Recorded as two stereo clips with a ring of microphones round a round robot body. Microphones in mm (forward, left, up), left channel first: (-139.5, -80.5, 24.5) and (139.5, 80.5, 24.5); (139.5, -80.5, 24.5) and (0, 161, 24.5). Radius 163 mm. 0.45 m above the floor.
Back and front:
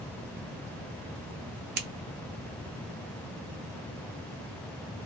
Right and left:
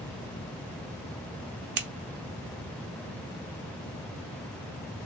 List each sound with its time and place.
1.8 s scissors: 80° left, 0.8 m